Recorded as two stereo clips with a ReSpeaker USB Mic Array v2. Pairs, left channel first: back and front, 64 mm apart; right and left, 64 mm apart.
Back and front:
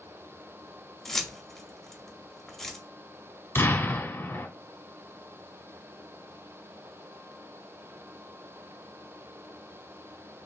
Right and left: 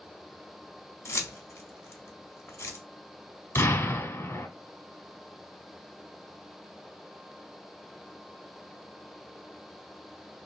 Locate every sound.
1.1 s keys jangling: 95° right, 0.7 m
3.5 s an explosion: 130° right, 0.9 m